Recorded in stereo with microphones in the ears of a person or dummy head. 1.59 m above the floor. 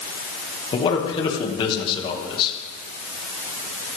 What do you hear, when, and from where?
0.7 s a man speaking: 30° left (ahead or behind), 2 m